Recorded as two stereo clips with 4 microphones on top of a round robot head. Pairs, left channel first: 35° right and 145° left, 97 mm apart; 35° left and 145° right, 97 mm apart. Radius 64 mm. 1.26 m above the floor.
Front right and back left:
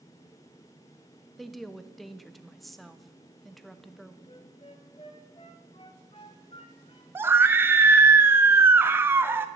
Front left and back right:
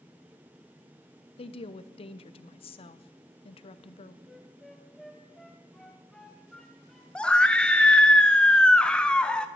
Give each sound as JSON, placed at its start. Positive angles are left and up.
{"t": 1.4, "sound": "a woman speaking", "azimuth_deg": 55, "distance_m": 0.8}
{"t": 4.2, "sound": "a flute", "azimuth_deg": -50, "distance_m": 1.2}
{"t": 7.2, "sound": "a scream", "azimuth_deg": 105, "distance_m": 0.5}